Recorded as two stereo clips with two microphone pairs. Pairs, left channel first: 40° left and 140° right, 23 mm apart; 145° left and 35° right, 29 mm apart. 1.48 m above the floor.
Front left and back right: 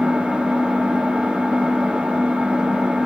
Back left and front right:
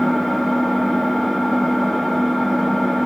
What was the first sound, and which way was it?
An engine running, 120° right.